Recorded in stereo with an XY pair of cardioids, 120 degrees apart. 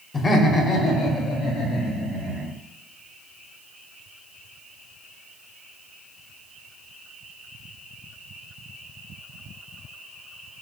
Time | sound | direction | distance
0.1 | laughter | 25° left | 0.8 m